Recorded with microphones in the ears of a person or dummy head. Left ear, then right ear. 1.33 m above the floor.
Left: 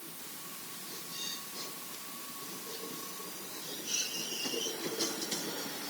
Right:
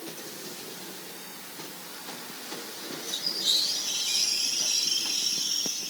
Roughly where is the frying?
No frying in this recording.